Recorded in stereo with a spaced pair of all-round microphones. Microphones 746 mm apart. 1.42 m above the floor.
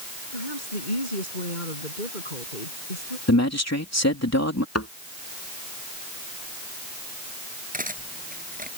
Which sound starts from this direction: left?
A woman speaking, at 0.3 s.